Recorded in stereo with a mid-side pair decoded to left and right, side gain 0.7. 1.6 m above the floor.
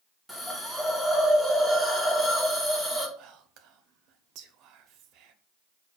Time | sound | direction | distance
0.3 | a hiss | straight ahead | 1.1 m
3.2 | whispering | 60° right | 0.6 m